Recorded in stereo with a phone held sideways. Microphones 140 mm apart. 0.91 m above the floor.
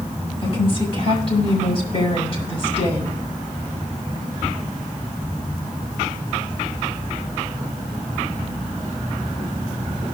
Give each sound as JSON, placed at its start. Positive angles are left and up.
{"t": 0.4, "sound": "a woman speaking", "side_deg": 45, "distance_m": 7.0}